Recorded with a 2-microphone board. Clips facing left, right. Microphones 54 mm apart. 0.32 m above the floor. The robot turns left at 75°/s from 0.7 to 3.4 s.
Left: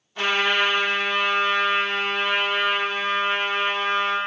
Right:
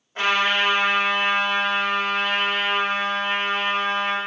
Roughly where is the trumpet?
Right.